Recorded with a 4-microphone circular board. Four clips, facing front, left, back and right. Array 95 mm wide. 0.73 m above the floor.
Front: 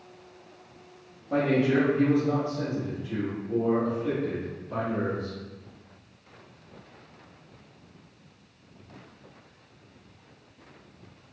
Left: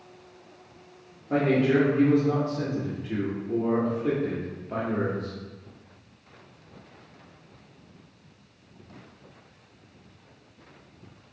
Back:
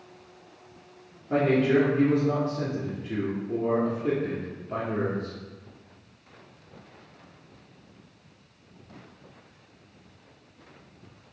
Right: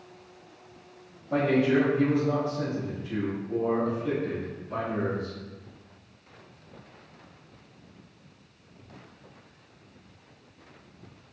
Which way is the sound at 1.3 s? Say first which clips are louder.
Left 1 dB, back 2 dB; 130° left.